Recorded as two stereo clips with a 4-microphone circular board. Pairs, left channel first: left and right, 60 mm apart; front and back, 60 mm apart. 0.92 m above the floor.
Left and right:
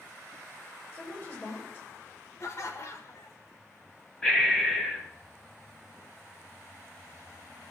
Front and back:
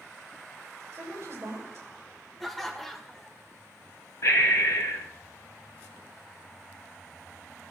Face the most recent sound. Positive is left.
turn(degrees=15)